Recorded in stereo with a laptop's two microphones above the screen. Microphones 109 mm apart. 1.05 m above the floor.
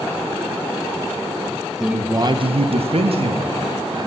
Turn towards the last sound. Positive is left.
turn(degrees=-50)  # may be behind; listen again after turning